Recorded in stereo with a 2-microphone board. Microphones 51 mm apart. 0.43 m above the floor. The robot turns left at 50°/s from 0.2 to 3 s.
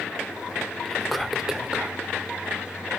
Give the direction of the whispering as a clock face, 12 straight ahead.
11 o'clock.